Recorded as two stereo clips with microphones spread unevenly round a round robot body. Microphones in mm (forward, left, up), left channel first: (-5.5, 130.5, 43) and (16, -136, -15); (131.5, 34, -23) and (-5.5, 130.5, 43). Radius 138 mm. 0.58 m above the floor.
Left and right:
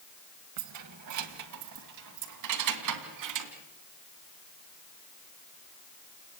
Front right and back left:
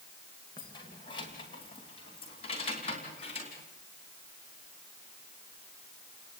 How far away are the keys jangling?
About 2 m.